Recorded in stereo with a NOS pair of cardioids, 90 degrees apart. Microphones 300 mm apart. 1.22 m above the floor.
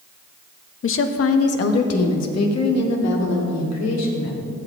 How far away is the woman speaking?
About 0.9 m.